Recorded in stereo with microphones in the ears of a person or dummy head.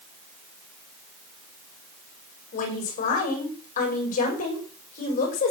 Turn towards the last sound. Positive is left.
turn(degrees=50)  # may be behind; listen again after turning